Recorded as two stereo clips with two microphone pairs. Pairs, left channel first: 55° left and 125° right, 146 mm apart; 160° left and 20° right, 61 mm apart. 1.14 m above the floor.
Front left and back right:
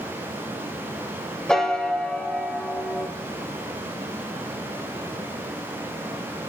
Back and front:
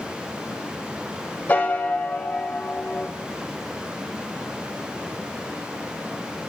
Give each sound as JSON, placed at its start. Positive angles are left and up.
{"t": 1.5, "sound": "a piano", "azimuth_deg": 135, "distance_m": 0.8}